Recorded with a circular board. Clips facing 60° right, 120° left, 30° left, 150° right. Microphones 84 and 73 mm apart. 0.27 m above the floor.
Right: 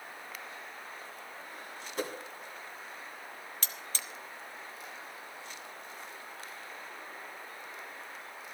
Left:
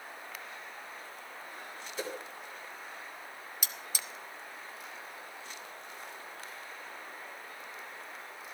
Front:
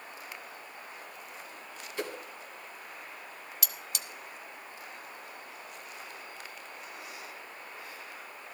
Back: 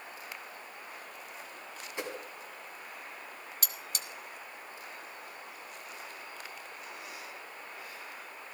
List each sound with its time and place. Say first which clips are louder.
2.0 s a whoosh: right 2 dB, front 2 dB; 80° right, 1.7 m
3.6 s cutlery clinking: left 1 dB, even; 165° right, 0.8 m